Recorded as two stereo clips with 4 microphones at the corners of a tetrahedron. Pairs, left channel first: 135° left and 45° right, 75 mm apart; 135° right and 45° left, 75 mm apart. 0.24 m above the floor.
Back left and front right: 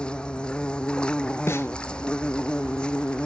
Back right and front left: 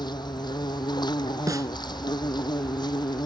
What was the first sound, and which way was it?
An insect, 150° right.